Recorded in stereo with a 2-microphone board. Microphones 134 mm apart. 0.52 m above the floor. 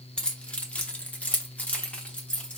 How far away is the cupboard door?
I don't hear a cupboard door.